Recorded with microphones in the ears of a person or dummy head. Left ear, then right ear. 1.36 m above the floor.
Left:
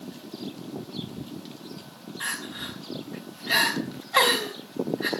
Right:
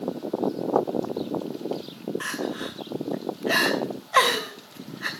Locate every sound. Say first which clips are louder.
2.2 s crying: left 1 dB; 20° right (ahead or behind), 2.5 m